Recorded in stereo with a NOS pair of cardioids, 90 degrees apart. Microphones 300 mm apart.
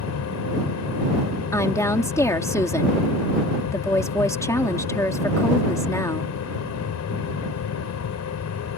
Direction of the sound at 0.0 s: 60° left.